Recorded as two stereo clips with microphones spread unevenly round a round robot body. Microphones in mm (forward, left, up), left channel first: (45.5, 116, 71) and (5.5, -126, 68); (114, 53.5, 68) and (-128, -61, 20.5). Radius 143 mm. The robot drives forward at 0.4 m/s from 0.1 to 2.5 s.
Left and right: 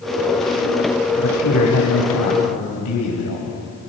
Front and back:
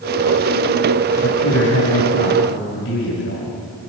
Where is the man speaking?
70° left, 5.5 m; by 3.5 s 75° left, 5 m.